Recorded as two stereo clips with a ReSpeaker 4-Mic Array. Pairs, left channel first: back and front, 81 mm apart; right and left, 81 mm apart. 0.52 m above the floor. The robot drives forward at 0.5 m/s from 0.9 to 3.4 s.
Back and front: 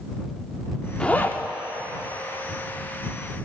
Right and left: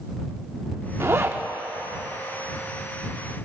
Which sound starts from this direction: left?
A zipper, at 1.0 s.